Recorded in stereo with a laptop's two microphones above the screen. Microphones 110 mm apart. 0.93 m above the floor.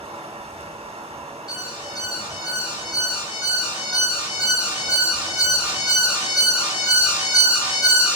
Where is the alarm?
10° right (ahead or behind), 1.7 m.